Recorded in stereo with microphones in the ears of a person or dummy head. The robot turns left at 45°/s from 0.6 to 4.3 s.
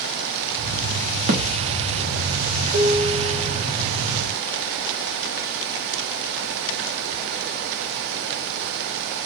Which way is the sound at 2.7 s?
55° right.